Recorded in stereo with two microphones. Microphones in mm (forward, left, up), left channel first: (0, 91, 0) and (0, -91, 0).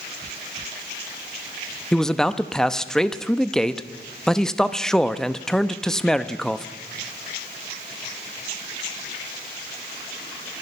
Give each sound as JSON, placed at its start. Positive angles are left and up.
{"t": 1.9, "sound": "a man speaking", "side_deg": 5, "distance_m": 0.6}